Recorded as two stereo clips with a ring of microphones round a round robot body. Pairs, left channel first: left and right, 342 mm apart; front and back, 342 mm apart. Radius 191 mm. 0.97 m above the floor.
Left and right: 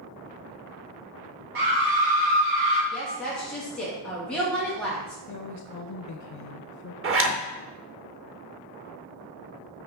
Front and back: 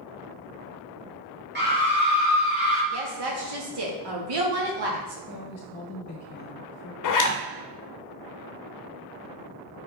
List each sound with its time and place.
1.6 s a scream: 120° right, 1.7 m; by 2.8 s 90° right, 2.5 m
2.9 s a woman speaking: 175° left, 2.0 m
5.3 s a woman speaking: 65° left, 0.8 m
7.0 s a zipper: 35° right, 1.1 m